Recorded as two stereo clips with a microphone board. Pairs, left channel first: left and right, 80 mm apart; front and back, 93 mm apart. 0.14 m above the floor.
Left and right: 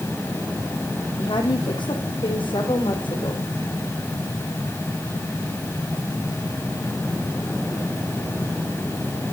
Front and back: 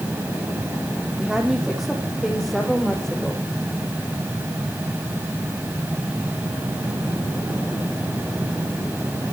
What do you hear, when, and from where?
1.2 s a woman speaking: 95° left, 4.5 m; by 3.5 s 85° left, 6.5 m